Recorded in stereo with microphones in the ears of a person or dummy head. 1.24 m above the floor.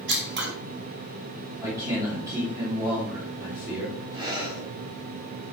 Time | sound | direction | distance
0.1 | scissors | 60° right (ahead or behind) | 1.8 m
1.6 | a man speaking | 20° right (ahead or behind) | 2.5 m
4.1 | breathing | 25° right (ahead or behind) | 2 m